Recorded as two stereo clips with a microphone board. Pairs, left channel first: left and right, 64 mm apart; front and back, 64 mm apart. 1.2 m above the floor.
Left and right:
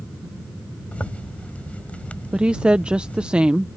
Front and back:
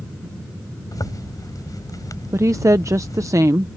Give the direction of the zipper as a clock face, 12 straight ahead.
11 o'clock.